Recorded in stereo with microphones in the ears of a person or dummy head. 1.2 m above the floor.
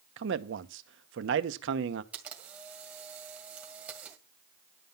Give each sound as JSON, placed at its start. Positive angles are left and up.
{"t": 0.2, "sound": "a man speaking", "side_deg": -65, "distance_m": 0.9}
{"t": 2.1, "sound": "a camera shutter", "side_deg": -15, "distance_m": 1.9}